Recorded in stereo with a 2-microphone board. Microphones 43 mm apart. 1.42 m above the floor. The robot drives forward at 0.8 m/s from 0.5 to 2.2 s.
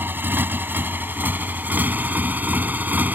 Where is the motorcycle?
55° right (ahead or behind); by 3.2 s 45° right (ahead or behind).